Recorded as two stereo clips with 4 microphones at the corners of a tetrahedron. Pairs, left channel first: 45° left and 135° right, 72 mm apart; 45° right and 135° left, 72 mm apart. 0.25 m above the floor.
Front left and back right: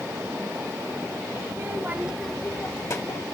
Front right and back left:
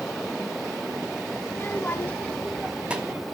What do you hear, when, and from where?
1.4 s a child speaking: 90° right, 1.0 m; by 3.2 s 75° left, 1.0 m